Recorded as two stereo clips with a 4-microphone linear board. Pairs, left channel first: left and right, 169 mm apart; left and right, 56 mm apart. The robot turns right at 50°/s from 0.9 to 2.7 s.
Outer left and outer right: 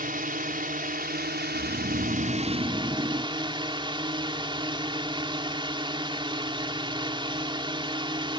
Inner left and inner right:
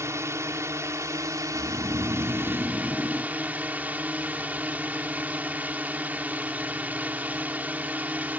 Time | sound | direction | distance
0.0 | a drone | 120° right | ?
1.5 | snoring | 85° right | ?